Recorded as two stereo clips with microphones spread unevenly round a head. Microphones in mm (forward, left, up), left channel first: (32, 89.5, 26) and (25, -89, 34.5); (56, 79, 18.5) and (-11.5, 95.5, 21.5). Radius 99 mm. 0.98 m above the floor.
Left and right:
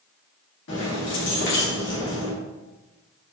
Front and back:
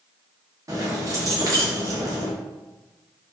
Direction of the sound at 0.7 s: 120° left.